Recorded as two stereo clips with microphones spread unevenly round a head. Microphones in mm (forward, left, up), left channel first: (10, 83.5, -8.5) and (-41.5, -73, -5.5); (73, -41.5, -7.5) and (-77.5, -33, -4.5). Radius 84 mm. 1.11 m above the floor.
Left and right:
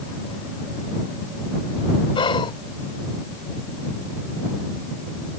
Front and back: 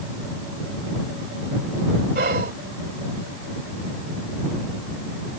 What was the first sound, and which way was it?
Whispering, 135° left.